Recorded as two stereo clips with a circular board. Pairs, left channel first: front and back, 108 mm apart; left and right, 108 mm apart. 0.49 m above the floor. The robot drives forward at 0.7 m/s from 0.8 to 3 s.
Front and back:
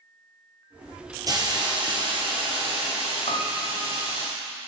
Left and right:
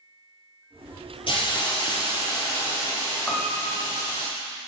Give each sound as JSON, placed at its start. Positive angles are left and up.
{"t": 1.3, "sound": "a hiss", "azimuth_deg": 125, "distance_m": 1.8}
{"t": 3.3, "sound": "a piano", "azimuth_deg": 0, "distance_m": 0.9}